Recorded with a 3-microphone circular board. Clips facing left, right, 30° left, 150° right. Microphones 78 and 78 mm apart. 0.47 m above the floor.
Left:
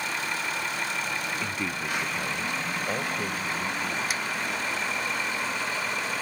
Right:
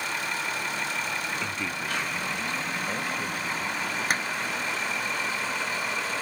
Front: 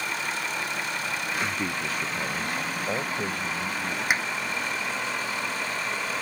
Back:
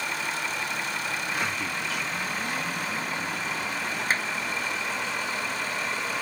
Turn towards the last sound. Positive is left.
turn(degrees=-45)